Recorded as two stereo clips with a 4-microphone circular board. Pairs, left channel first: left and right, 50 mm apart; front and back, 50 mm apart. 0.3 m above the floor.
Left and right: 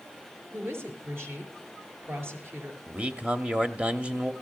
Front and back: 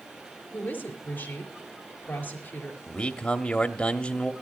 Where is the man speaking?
50° right, 1.0 m.